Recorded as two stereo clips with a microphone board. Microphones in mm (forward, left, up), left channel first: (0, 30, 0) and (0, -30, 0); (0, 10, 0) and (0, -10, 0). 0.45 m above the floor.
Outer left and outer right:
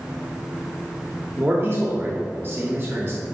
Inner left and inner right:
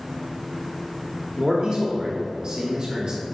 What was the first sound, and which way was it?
A man speaking, 40° right (ahead or behind).